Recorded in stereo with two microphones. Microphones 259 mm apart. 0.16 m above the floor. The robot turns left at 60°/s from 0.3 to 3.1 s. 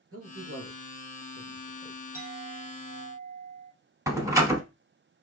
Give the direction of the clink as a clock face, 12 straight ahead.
6 o'clock.